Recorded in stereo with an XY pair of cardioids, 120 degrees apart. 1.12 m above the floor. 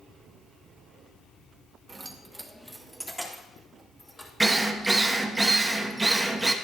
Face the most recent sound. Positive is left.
turn(degrees=-15)